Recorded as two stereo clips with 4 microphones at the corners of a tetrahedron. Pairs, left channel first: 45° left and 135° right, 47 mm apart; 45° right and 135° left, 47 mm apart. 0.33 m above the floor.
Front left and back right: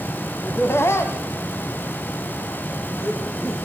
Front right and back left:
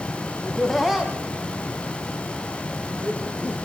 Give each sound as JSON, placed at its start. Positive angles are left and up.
{"t": 0.4, "sound": "laughter", "azimuth_deg": 35, "distance_m": 1.9}